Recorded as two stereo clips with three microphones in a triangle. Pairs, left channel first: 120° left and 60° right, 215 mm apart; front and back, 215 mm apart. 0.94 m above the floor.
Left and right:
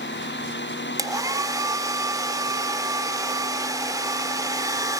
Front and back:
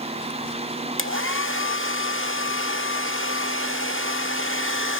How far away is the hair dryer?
About 1.3 m.